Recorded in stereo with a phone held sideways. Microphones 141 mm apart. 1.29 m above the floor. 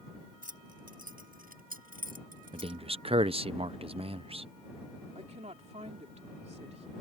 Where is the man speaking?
40° right (ahead or behind).